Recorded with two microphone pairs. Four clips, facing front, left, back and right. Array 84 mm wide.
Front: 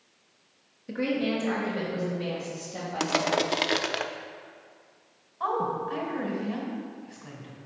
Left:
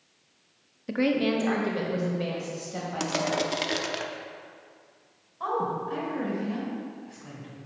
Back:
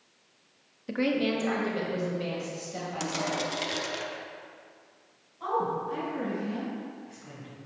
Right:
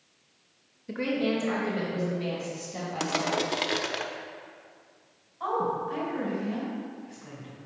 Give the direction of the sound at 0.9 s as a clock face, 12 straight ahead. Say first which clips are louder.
Left 3 dB, back 1 dB; 8 o'clock.